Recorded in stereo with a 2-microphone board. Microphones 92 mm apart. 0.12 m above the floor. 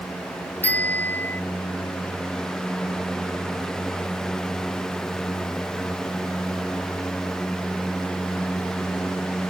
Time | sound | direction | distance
0.6 | a bicycle bell | 20° left (ahead or behind) | ?